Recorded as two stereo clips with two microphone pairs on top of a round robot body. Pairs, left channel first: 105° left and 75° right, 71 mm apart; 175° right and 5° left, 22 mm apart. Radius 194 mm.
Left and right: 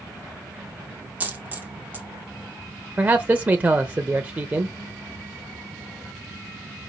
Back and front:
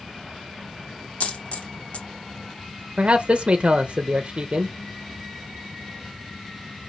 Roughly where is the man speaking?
Ahead.